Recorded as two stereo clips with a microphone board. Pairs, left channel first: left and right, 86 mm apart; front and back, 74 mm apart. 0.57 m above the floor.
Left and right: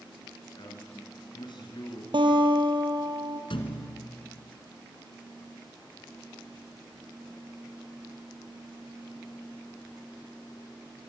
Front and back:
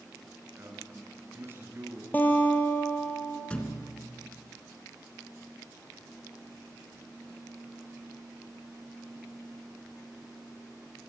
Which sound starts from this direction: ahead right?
A guitar, at 2.1 s.